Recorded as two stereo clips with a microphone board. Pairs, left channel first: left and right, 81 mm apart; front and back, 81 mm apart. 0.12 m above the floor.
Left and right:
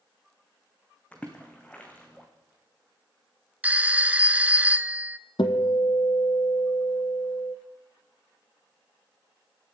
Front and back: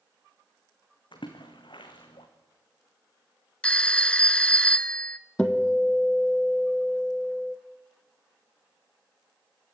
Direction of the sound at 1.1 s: 15° left.